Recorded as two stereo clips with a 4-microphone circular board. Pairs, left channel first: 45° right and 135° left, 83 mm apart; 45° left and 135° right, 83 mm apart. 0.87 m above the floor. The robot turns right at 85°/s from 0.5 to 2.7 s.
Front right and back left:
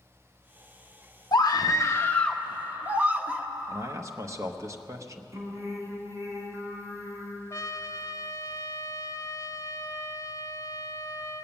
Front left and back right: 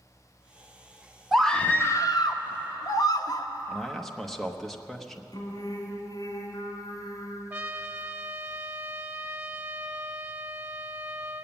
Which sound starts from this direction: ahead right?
A scream, at 1.3 s.